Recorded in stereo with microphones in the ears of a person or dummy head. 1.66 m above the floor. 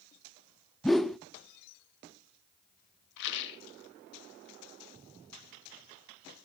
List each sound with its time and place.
0.8 s a whoosh: 5° left (ahead or behind), 0.6 m
3.2 s a rattle: 70° left (ahead or behind), 2.5 m